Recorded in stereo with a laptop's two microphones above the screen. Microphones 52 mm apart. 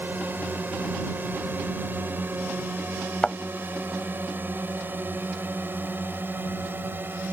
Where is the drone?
40° right (ahead or behind).